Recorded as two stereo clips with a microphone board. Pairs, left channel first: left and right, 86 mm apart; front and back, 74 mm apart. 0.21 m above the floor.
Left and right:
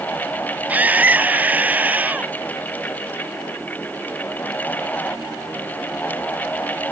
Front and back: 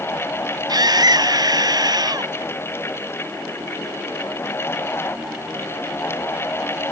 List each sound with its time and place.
0.7 s a scream: 160° right